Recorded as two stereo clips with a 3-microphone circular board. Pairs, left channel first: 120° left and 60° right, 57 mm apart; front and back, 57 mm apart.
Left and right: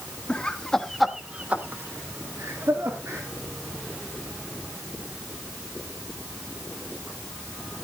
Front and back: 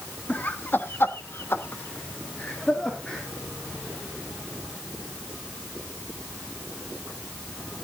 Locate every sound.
0.3 s laughter: 55° left, 1.9 m; by 3.2 s 75° right, 2.5 m